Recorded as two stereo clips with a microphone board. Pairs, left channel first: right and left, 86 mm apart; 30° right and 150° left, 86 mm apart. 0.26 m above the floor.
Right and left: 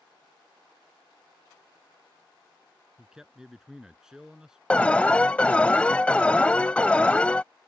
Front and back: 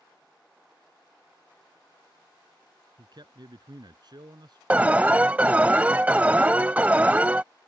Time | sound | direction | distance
3.0 | a man speaking | 175° left | ?
4.7 | an alarm | 155° right | ?